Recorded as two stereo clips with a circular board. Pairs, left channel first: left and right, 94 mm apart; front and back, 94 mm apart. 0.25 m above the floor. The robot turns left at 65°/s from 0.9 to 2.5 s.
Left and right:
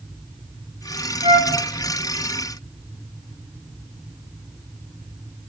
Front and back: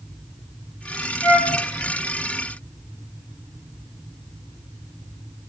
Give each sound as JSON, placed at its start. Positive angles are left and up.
{"t": 1.2, "sound": "a flute", "azimuth_deg": -75, "distance_m": 3.0}